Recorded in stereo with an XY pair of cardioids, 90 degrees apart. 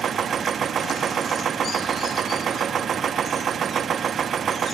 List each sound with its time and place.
0.0 s a machine running: 65° right, 1.0 m